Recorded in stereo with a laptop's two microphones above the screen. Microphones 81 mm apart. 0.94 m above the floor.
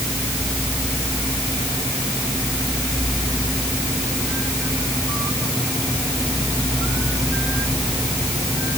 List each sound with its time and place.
Only background noise.